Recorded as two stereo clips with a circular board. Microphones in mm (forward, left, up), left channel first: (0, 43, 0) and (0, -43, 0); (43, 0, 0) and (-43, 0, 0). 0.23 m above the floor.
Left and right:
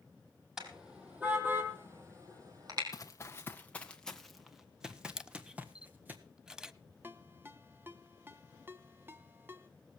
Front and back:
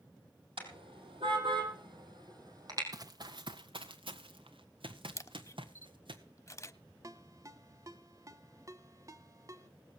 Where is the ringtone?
145° right, 1.3 m.